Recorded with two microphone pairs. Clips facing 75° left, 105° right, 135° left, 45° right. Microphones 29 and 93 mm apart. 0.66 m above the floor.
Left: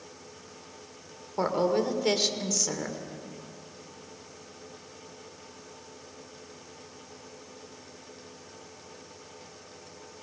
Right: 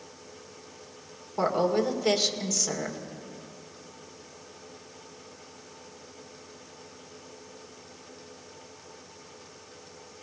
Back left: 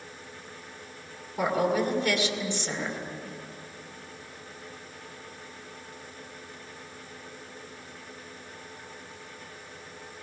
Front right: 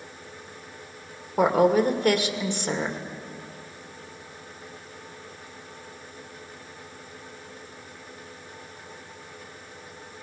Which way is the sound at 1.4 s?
10° right.